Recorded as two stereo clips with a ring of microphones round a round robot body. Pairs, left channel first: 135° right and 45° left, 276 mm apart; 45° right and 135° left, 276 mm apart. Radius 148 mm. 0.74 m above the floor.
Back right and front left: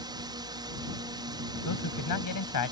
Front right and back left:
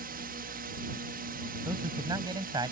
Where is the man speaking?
150° right.